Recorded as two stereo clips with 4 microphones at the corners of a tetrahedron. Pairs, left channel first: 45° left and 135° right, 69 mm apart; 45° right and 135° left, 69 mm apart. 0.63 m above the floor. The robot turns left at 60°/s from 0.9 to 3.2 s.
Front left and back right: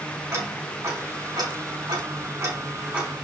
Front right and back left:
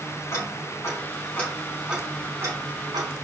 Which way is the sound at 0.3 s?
85° right.